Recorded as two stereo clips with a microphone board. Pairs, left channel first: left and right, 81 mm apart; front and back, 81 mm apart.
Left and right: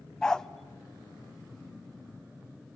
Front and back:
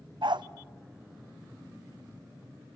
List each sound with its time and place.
0.2 s a dog barking: 170° left, 0.6 m